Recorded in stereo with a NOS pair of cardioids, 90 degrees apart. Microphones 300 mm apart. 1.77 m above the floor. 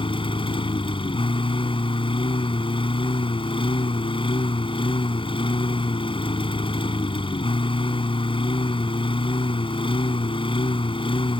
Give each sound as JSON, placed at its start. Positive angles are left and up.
{"t": 0.0, "sound": "a lawn mower", "azimuth_deg": 20}